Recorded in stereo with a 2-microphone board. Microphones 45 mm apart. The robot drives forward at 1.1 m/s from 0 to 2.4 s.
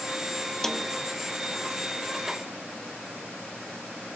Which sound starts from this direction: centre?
A snare drum, at 0.6 s.